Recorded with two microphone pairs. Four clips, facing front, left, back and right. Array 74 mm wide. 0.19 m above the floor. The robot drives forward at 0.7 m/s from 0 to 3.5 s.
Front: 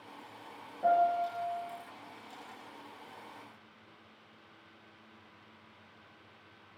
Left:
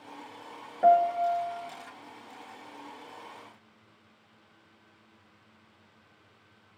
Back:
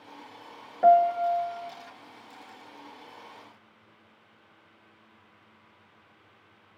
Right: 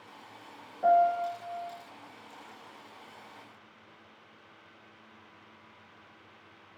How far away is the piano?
About 1.1 m.